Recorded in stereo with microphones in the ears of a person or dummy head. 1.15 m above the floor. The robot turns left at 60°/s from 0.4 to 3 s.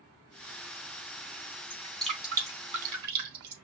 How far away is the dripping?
About 3.5 m.